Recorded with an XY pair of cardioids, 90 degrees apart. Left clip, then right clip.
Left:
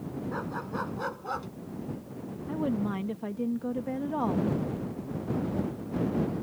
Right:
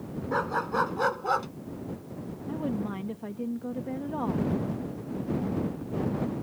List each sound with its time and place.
0.3 s a dog barking: 60° right; by 1.5 s 55° right
2.5 s a woman speaking: 25° left